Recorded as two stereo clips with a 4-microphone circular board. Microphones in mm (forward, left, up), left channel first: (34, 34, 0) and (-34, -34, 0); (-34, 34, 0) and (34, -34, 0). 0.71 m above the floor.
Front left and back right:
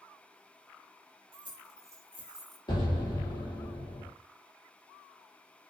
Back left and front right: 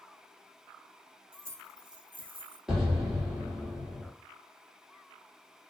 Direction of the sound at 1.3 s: 115° right.